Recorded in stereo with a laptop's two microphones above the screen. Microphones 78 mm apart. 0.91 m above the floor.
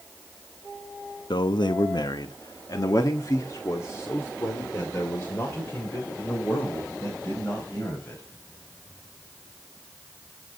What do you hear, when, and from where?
1.3 s a man speaking: 70° left (ahead or behind), 0.9 m; by 8.2 s 25° left (ahead or behind), 4.5 m